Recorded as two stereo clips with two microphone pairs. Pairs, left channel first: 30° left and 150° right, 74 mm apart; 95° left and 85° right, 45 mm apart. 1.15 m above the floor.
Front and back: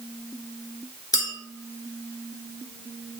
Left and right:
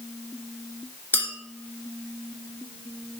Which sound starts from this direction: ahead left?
A clink, at 1.1 s.